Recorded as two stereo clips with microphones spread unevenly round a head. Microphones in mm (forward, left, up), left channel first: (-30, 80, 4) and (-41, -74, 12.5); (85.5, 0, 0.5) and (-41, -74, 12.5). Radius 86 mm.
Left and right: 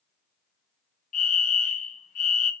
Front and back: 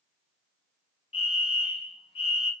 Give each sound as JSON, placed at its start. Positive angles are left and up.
{"t": 1.1, "sound": "a fire alarm", "azimuth_deg": 75, "distance_m": 1.6}